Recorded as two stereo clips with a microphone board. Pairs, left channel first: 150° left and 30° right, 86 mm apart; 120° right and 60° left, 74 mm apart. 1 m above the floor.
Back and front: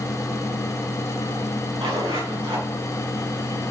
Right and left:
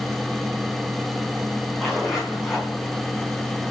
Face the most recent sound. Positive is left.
turn(degrees=-25)